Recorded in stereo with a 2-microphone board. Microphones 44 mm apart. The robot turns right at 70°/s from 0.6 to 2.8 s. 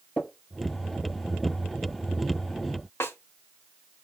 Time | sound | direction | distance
0.2 | tapping | 35° left (ahead or behind) | 3.5 m
3.0 | a snare drum | 65° left (ahead or behind) | 0.9 m